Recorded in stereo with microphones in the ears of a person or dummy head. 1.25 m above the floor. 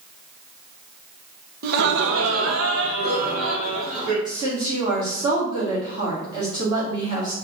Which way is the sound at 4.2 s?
20° right (ahead or behind).